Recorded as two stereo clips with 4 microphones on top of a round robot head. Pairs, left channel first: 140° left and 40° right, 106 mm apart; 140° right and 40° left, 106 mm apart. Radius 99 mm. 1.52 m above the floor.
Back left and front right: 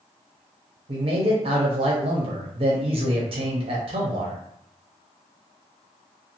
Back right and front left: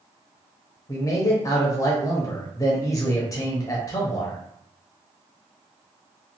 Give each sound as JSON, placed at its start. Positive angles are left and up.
{"t": 0.9, "sound": "a man speaking", "azimuth_deg": -80, "distance_m": 0.6}